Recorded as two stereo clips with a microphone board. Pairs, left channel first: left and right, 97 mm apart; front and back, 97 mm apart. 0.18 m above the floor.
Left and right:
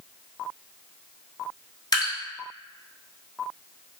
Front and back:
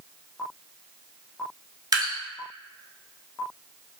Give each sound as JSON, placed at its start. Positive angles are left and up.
{"t": 1.9, "sound": "dripping", "azimuth_deg": 135, "distance_m": 0.7}